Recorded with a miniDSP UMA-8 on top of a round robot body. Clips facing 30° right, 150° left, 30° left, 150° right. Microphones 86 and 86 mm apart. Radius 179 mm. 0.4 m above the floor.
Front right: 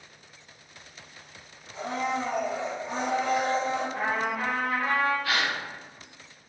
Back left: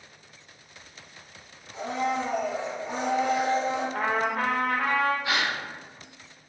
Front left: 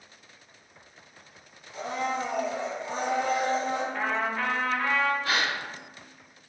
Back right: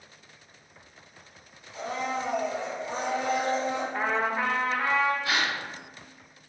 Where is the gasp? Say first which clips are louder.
Even, even; 80° left, 1.3 m.